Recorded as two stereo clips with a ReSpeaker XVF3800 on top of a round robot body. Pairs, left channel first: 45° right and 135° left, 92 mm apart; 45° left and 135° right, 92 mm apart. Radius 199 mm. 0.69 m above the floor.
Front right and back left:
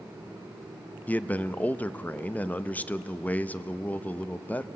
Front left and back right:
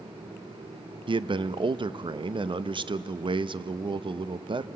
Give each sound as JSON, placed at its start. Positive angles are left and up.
{"t": 1.1, "sound": "a man speaking", "azimuth_deg": -115, "distance_m": 0.7}